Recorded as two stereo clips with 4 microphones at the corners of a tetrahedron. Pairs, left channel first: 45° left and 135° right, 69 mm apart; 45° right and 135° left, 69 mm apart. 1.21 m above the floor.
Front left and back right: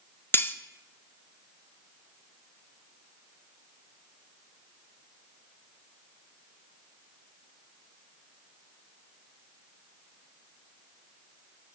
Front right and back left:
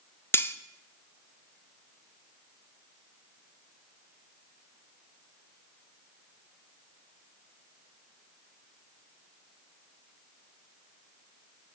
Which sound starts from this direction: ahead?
Cutlery clinking, at 0.3 s.